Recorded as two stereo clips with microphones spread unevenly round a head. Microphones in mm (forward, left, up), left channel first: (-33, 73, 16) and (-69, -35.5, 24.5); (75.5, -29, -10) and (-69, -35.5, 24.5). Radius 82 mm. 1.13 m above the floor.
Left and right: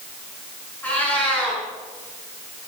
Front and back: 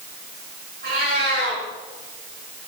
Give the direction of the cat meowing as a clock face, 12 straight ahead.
7 o'clock.